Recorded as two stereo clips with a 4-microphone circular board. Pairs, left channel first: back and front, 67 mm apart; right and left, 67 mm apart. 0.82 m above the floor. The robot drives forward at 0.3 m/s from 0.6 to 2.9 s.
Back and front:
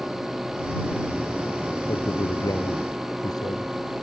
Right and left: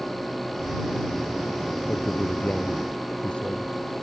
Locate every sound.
1.9 s a man speaking: 165° right